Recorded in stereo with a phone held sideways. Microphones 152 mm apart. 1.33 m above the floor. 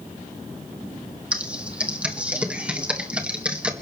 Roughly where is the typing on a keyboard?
Centre.